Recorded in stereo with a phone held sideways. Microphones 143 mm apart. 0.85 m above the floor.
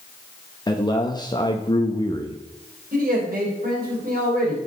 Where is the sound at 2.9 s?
80° right, 3 m.